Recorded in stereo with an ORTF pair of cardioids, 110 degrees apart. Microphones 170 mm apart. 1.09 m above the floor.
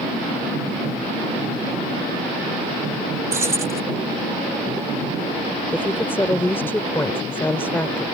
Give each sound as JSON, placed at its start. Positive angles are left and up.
{"t": 3.3, "sound": "keys jangling", "azimuth_deg": -15}
{"t": 5.7, "sound": "a woman speaking", "azimuth_deg": 10}